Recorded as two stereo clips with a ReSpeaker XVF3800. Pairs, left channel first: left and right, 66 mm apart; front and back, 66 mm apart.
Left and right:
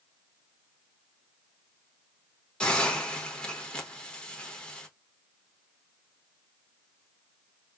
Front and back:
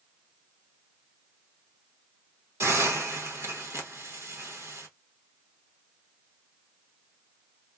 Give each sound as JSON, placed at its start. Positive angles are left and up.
{"t": 2.6, "sound": "a hiss", "azimuth_deg": 160, "distance_m": 0.8}